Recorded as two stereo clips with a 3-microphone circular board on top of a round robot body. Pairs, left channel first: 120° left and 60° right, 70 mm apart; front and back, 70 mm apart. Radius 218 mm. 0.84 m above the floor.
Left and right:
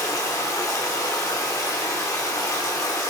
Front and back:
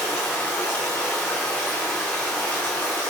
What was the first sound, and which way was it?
Running water, 80° left.